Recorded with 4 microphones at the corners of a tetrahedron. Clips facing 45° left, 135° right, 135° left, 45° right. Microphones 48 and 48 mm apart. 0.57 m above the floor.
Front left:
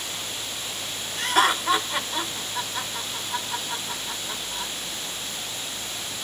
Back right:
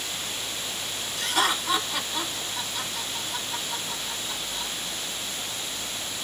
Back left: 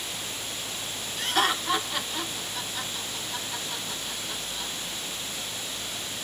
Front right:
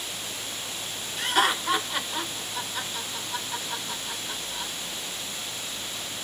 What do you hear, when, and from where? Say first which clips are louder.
1.2 s laughter: front left 4 dB, front right 2 dB; 30° left, 1.0 m